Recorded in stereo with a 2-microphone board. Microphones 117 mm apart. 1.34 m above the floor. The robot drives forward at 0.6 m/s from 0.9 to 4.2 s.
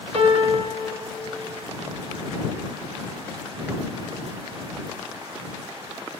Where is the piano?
60° right (ahead or behind), 0.6 m.